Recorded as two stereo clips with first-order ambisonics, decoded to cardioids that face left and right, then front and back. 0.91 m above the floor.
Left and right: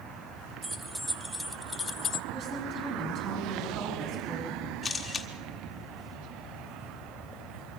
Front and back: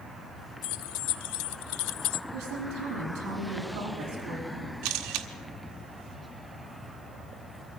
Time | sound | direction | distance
0.6 | keys jangling | 10° right | 1.3 m
2.3 | a woman speaking | 140° right | 6.5 m
4.8 | a camera shutter | 165° left | 1.6 m